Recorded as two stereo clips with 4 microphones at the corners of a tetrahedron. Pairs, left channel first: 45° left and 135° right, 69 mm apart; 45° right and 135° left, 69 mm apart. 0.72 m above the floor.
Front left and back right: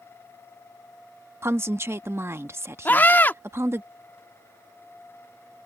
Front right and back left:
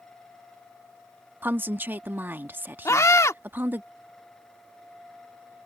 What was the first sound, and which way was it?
A woman speaking, 175° right.